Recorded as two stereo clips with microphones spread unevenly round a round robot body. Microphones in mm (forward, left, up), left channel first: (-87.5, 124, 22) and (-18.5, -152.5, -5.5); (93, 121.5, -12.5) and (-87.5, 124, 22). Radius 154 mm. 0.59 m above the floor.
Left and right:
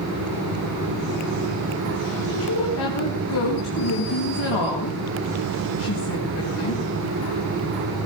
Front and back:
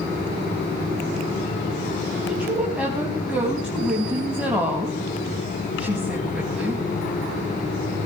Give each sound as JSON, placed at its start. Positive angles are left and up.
{"t": 2.3, "sound": "a woman speaking", "azimuth_deg": 95, "distance_m": 4.0}